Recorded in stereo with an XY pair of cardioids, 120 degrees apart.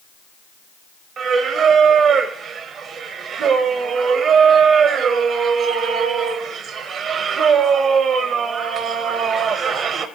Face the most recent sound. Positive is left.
turn(degrees=-55)